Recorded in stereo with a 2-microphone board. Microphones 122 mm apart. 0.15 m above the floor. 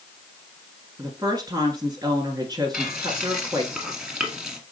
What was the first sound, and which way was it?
A woman speaking, 30° right (ahead or behind).